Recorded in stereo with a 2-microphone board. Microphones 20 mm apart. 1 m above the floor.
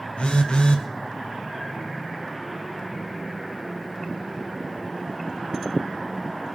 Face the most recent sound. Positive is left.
turn(degrees=80)